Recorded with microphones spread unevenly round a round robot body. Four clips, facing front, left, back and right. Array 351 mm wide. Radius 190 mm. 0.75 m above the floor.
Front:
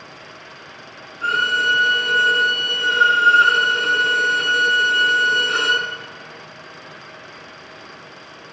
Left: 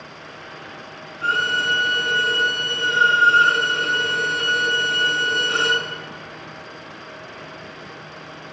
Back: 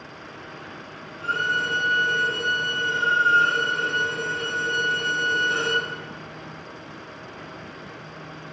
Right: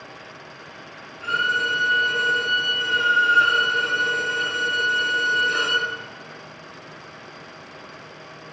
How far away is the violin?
About 5.5 m.